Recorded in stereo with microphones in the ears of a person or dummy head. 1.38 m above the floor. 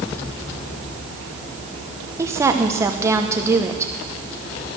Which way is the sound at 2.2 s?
15° right (ahead or behind).